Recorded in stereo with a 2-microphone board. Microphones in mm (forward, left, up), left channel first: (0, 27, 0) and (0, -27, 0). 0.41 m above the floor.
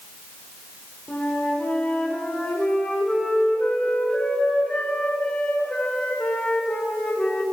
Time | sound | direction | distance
1.1 | a flute | 30° left (ahead or behind) | 1.6 m